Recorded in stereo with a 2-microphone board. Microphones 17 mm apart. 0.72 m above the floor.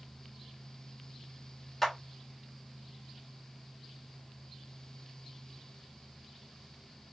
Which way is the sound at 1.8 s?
20° left (ahead or behind).